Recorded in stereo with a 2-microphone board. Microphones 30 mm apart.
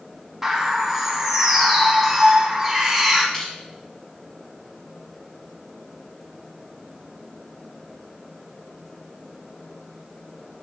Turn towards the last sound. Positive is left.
turn(degrees=5)  # may be behind; listen again after turning